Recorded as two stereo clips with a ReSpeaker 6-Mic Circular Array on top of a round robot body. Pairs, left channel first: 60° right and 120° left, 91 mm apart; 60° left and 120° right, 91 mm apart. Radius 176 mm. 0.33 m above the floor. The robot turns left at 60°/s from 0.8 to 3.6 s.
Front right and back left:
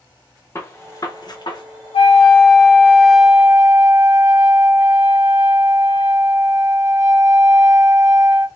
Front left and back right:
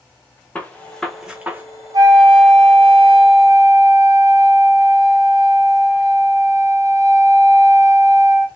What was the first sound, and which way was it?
A gunshot, 10° right.